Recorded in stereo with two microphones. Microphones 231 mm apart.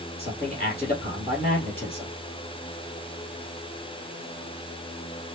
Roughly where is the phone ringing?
No phone ringing in this recording.